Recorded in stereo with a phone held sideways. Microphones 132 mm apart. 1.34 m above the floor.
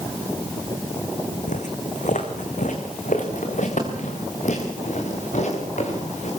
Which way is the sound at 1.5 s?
70° left (ahead or behind).